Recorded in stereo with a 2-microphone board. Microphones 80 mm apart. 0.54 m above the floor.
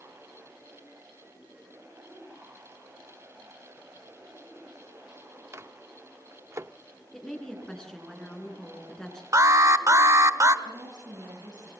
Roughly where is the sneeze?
I don't hear a sneeze.